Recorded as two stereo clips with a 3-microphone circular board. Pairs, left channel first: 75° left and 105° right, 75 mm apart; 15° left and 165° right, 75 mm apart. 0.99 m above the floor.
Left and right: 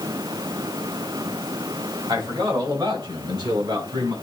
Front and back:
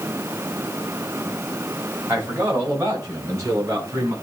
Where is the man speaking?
110° right, 6 m; by 4.1 s 120° right, 7.5 m.